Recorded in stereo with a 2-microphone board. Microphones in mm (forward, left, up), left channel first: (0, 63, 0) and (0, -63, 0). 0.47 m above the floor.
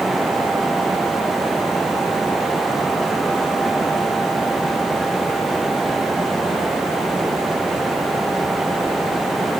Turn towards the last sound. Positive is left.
No sound to turn to.